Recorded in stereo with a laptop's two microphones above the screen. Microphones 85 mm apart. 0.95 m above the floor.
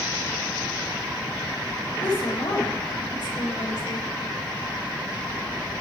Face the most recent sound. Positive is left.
turn(degrees=70)  # may be behind; listen again after turning